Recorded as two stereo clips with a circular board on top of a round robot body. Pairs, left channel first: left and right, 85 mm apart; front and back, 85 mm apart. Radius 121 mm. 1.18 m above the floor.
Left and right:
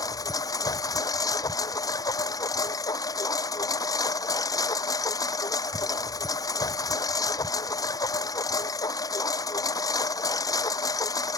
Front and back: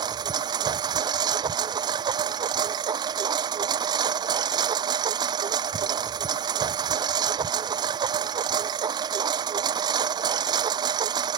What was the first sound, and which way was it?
A lawn mower, 140° left.